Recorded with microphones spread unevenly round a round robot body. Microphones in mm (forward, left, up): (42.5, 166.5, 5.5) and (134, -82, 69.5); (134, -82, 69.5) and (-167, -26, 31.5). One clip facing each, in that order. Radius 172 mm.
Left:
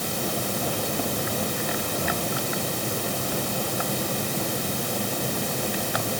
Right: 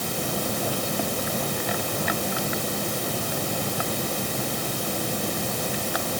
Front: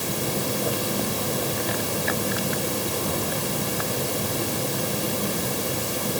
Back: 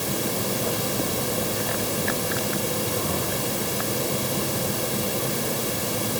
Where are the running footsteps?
No running footsteps in this recording.